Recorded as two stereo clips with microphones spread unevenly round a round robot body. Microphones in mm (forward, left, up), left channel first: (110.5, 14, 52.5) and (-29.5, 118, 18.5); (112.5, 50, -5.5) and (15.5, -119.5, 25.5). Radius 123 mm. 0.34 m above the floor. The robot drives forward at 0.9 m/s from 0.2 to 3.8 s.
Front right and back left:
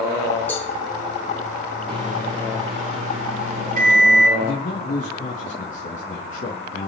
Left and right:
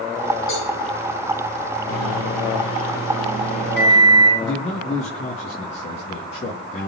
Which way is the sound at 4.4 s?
5° left.